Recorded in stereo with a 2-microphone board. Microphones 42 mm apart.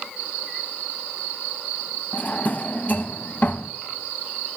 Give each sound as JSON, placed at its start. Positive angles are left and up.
{"t": 2.1, "sound": "a drawer", "side_deg": 40, "distance_m": 0.6}